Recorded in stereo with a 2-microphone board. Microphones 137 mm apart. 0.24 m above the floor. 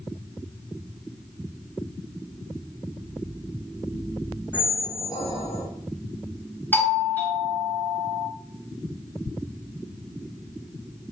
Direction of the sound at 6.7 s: 10° left (ahead or behind).